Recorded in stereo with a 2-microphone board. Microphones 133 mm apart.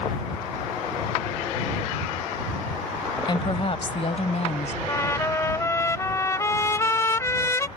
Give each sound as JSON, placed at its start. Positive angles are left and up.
{"t": 3.3, "sound": "a woman speaking", "side_deg": 35}
{"t": 4.9, "sound": "a trumpet", "side_deg": 20}